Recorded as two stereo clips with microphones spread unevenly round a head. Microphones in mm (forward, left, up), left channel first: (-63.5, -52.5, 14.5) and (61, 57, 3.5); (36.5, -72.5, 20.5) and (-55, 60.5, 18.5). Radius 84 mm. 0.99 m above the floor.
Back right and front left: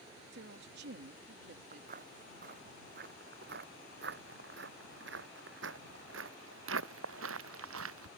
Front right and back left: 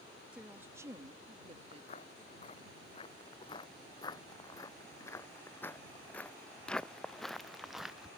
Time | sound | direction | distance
0.3 | a woman speaking | 40° left | ?
1.7 | footsteps | 5° right | ?